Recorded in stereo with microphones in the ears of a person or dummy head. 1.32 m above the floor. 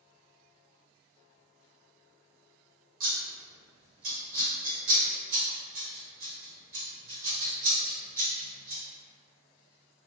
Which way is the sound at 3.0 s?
40° right (ahead or behind).